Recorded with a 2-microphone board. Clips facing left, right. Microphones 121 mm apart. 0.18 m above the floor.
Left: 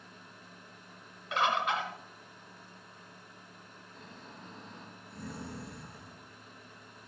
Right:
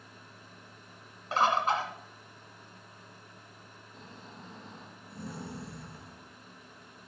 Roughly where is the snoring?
Right.